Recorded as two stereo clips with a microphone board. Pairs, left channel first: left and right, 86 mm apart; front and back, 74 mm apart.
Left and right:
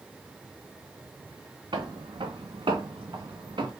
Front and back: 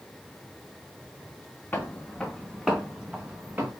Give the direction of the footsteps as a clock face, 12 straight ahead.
2 o'clock.